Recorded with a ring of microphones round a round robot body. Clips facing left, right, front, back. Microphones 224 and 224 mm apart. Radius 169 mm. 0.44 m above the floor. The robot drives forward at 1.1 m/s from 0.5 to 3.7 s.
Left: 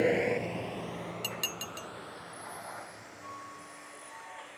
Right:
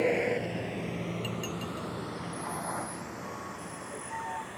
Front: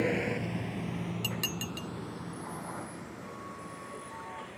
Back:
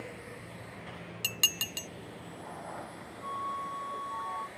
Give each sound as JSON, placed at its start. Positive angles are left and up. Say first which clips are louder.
{"t": 0.0, "sound": "a vehicle", "louder": "even, front 15 dB", "azimuth_deg": 10}
{"t": 1.2, "sound": "dishes clattering", "louder": "right 7 dB, front 7 dB", "azimuth_deg": 110}
{"t": 3.2, "sound": "a flute", "louder": "right 9 dB, even", "azimuth_deg": -175}